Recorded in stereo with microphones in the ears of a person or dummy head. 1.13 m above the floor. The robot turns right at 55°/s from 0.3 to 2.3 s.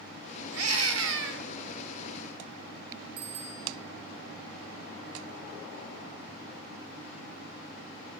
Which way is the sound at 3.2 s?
85° right.